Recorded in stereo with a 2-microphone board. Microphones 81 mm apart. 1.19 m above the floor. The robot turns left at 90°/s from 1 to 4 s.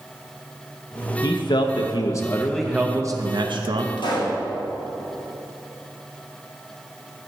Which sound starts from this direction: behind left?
A man speaking, at 1.2 s.